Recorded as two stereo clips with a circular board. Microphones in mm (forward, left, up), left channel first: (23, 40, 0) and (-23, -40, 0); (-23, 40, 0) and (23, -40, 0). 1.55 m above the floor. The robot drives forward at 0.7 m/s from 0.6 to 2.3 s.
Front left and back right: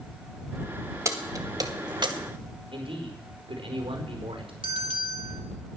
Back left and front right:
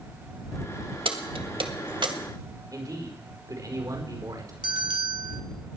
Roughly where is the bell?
Right.